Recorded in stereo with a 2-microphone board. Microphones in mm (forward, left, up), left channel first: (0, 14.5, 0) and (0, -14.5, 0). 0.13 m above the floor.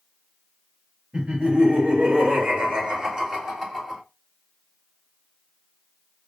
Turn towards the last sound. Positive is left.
turn(degrees=-5)  # may be behind; listen again after turning